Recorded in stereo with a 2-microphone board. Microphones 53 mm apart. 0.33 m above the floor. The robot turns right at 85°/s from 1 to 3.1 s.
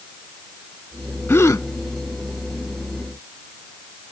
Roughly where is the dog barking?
No dog barking in this recording.